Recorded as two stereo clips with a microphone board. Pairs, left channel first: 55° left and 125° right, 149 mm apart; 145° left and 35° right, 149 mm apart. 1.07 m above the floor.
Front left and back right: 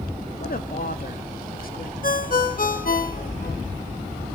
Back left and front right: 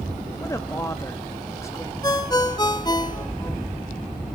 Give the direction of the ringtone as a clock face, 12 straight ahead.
9 o'clock.